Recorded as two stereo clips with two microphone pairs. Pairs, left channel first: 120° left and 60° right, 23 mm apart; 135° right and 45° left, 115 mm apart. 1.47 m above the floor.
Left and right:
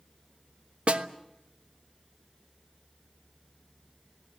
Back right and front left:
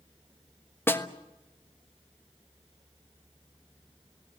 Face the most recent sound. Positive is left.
turn(degrees=-65)